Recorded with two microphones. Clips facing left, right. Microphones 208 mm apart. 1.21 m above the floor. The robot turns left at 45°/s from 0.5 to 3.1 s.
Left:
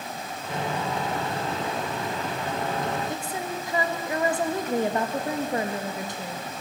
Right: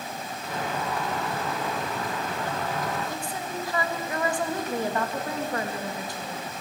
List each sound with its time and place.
3.1 s a woman speaking: 20° left (ahead or behind), 1.9 m